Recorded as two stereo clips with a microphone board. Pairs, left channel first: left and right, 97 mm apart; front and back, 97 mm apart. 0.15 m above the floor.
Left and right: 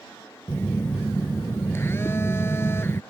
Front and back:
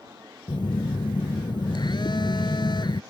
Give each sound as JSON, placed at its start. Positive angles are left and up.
{"t": 0.5, "sound": "a phone buzzing", "azimuth_deg": 30}